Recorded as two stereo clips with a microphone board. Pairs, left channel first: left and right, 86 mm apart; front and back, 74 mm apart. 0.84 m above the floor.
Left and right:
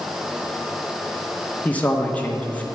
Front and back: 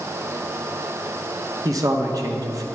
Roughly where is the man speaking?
Behind.